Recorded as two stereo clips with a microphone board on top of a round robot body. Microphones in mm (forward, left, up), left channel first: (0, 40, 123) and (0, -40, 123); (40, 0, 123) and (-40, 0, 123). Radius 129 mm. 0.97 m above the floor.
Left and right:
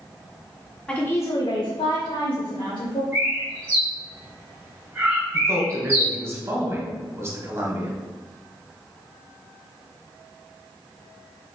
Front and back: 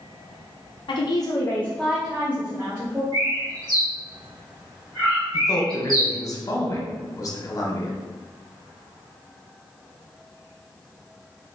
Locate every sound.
0.9 s a woman speaking: 15° left, 0.7 m; by 3.0 s 125° left, 1.5 m
3.1 s a bird: 150° right, 1.5 m
5.3 s a man speaking: 40° right, 1.3 m